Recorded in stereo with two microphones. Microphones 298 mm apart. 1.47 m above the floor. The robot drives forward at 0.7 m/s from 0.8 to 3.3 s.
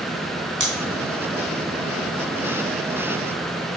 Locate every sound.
0.6 s scissors: 85° right, 3 m